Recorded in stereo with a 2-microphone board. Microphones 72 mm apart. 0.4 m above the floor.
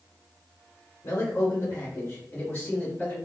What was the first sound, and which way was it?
A man speaking, 40° left (ahead or behind).